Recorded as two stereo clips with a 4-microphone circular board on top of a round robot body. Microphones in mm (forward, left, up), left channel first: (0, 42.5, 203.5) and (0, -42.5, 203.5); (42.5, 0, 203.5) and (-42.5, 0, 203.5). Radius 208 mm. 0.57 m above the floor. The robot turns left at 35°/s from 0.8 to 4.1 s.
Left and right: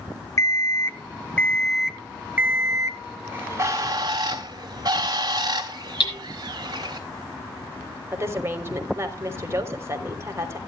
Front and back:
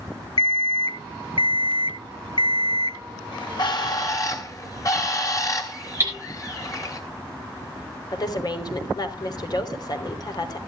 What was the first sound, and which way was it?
An alarm clock, 35° left.